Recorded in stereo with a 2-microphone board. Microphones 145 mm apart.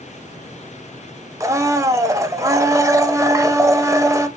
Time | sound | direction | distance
1.4 | a blender | 20° right (ahead or behind) | 0.5 m